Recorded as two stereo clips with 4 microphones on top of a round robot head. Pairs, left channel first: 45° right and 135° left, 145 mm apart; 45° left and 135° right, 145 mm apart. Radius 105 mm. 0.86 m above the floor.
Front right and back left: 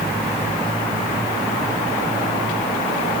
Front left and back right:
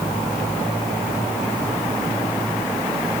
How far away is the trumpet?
I don't hear a trumpet.